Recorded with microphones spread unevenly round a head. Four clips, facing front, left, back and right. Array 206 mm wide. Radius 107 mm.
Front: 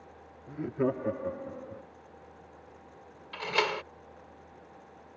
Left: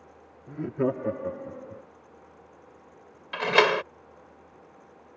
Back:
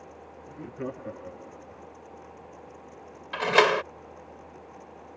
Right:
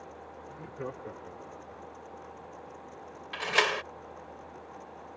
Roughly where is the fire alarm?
No fire alarm in this recording.